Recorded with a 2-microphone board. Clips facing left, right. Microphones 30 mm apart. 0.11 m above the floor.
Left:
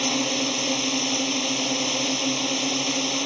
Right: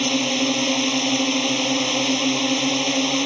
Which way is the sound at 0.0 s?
25° right (ahead or behind).